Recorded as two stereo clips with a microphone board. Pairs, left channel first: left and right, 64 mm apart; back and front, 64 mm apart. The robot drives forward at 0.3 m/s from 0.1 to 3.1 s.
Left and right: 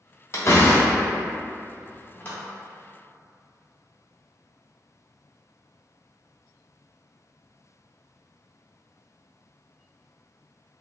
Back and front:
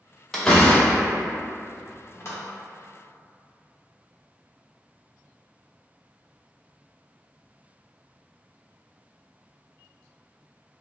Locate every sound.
0.3 s a door slam: 100° left, 0.7 m; by 2.4 s 145° left, 1.0 m